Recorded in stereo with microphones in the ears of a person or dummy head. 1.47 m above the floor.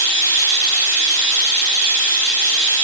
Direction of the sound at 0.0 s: 5° left (ahead or behind).